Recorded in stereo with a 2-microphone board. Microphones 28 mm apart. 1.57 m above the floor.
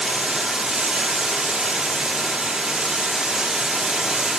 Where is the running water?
20° right (ahead or behind), 1.6 m.